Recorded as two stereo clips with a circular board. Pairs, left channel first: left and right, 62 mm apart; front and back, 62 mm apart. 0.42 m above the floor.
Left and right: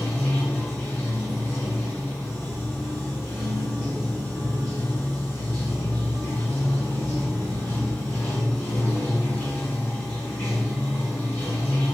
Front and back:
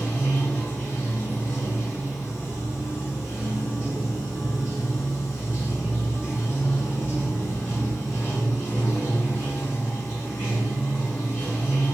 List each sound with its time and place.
0.0 s running water: 30° left, 1.4 m